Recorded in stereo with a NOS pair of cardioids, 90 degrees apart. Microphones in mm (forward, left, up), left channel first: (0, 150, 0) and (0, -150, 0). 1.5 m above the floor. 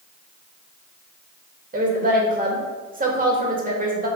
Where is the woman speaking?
25° right, 2.5 m.